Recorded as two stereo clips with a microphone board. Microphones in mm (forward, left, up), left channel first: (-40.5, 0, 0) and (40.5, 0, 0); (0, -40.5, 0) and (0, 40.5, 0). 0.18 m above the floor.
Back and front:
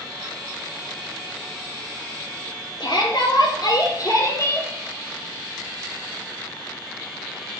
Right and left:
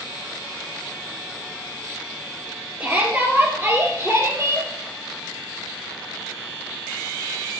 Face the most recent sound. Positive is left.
turn(degrees=125)